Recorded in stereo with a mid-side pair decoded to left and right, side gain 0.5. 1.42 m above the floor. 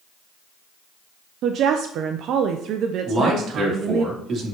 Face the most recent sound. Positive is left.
turn(degrees=-45)